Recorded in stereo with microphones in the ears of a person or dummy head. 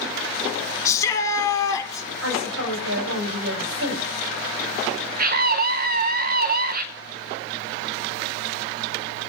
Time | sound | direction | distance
0.8 | a shout | 20° left (ahead or behind) | 4 m
2.2 | a woman speaking | 90° right | 9 m
5.2 | a scream | 40° right (ahead or behind) | 1.4 m